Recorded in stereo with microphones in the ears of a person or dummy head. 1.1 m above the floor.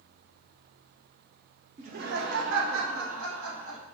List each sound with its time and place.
1.8 s laughter: 35° right (ahead or behind), 0.5 m; by 3.8 s 75° right (ahead or behind), 1.7 m